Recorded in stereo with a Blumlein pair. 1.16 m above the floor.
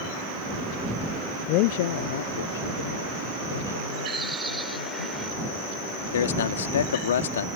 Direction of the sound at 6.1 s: 60° left.